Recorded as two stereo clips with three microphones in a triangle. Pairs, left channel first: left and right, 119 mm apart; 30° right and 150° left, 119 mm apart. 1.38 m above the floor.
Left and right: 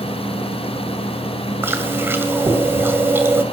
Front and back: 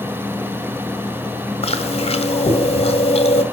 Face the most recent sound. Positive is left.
turn(degrees=-20)